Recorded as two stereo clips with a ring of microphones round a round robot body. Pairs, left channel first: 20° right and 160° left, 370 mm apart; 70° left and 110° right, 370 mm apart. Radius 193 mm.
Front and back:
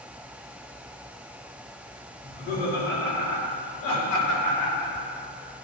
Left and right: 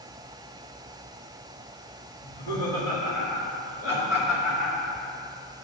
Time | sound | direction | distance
2.2 | laughter | 45° left | 3 m